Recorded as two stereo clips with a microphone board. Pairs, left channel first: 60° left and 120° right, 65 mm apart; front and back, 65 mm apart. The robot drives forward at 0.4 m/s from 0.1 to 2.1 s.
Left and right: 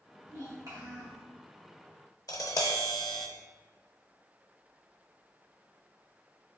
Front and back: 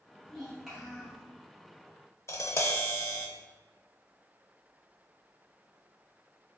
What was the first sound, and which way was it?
A child speaking, 90° right.